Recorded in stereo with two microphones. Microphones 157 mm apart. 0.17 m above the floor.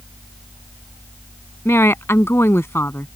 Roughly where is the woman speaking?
Centre.